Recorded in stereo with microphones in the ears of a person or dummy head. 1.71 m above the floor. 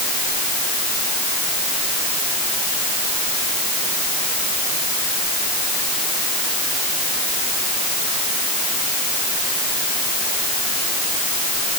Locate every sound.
Only background noise.